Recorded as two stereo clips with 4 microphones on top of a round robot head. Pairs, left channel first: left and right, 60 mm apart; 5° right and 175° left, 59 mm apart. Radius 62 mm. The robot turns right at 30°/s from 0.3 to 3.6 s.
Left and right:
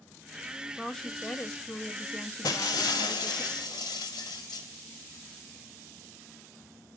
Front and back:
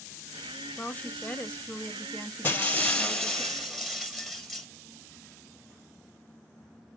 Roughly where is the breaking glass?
Ahead left.